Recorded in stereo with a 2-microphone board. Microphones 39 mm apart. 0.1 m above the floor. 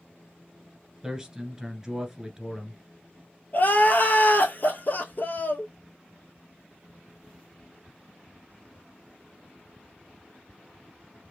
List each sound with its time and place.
1.0 s a man speaking: 15° right (ahead or behind), 1.2 m
3.5 s crying: 50° left (ahead or behind), 1.0 m